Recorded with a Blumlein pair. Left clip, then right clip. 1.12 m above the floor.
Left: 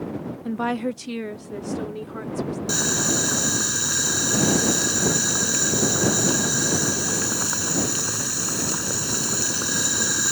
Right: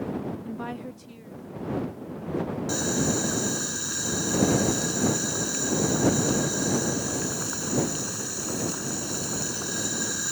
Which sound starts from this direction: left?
Boiling, at 2.7 s.